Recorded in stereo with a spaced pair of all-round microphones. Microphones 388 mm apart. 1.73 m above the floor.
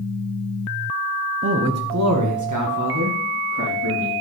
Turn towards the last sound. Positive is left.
turn(degrees=-55)  # may be behind; listen again after turning